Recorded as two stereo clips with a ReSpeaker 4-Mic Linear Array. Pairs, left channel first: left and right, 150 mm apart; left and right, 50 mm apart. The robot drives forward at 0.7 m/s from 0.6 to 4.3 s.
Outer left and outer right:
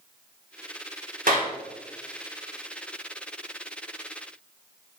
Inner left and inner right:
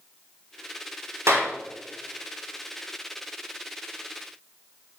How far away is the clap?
About 2.5 m.